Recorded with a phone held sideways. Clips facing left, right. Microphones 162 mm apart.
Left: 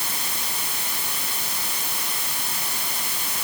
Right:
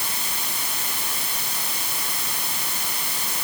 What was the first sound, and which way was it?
Only background noise.